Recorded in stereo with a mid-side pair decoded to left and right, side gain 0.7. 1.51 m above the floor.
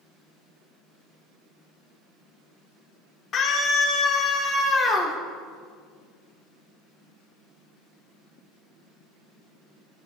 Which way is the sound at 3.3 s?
35° left.